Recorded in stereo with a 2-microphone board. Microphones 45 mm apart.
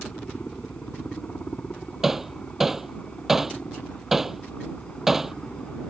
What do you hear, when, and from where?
0.0 s a helicopter: 30° left (ahead or behind)
2.0 s hammering: 10° right (ahead or behind)